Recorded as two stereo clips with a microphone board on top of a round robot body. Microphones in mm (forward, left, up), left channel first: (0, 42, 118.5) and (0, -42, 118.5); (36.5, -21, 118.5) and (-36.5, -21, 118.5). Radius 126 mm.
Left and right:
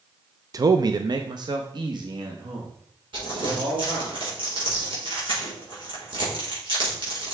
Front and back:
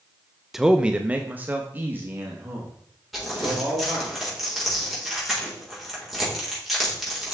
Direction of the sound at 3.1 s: 90° right.